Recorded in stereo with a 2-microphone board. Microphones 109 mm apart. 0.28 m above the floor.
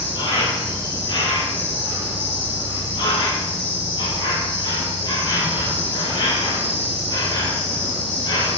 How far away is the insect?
About 4 m.